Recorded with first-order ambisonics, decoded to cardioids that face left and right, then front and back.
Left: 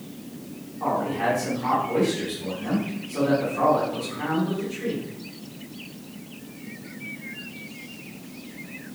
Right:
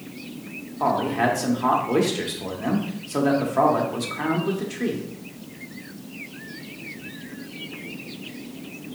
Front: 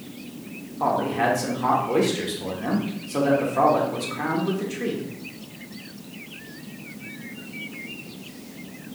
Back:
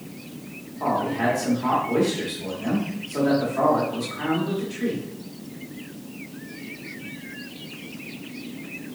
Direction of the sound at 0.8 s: 60° right.